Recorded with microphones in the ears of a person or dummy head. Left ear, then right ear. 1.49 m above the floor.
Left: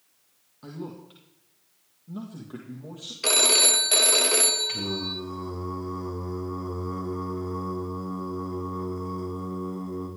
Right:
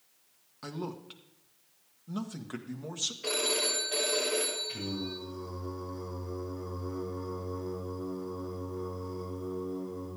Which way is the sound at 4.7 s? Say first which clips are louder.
Left 7 dB; 50° left (ahead or behind).